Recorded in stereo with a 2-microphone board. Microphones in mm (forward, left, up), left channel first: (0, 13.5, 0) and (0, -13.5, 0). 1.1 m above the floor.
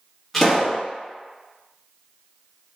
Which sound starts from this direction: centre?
A pop, at 0.3 s.